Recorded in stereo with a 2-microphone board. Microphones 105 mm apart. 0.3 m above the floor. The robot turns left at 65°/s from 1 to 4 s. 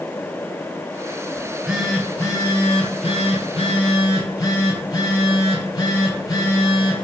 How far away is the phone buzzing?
About 0.8 m.